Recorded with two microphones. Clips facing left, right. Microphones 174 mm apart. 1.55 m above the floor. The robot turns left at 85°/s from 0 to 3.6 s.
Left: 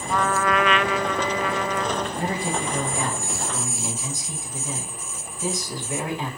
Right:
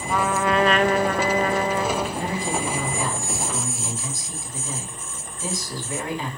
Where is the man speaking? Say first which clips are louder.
Even; 140° left, 4.5 m; by 6.3 s 20° left, 4.5 m.